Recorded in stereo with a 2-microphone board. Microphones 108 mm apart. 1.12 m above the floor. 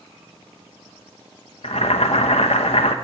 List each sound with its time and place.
1.6 s boiling: 70° left (ahead or behind), 1.0 m